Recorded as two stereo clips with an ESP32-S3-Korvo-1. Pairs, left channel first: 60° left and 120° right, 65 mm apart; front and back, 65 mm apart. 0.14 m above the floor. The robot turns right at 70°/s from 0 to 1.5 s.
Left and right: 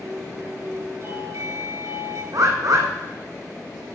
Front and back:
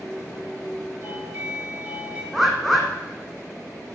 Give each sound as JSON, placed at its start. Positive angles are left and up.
{"t": 1.0, "sound": "a doorbell", "azimuth_deg": -150, "distance_m": 3.5}
{"t": 2.3, "sound": "a bird", "azimuth_deg": -85, "distance_m": 1.9}